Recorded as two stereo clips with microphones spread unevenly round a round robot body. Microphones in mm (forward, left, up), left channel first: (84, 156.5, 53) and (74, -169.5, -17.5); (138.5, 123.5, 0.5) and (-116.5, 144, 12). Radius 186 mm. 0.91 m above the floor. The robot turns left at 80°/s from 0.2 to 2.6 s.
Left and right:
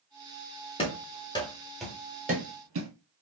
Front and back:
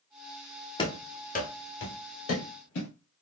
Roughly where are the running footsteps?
Ahead left.